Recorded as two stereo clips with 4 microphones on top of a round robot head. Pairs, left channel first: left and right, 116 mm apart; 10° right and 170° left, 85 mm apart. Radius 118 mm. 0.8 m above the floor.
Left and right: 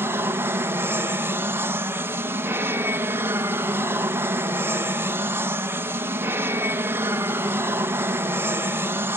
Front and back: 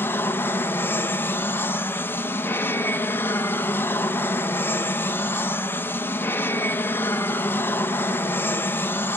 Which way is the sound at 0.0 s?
40° right.